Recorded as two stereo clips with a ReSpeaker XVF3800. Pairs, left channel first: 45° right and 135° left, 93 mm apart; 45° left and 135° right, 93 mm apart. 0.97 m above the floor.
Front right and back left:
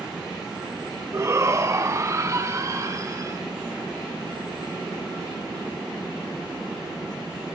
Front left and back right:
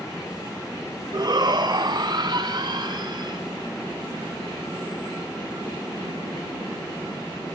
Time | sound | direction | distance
1.1 | a shout | 170° right | 1.3 m